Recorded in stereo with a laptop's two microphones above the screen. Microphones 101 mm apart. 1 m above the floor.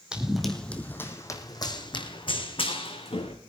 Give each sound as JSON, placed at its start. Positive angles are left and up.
{"t": 0.1, "sound": "running footsteps", "side_deg": -10, "distance_m": 2.5}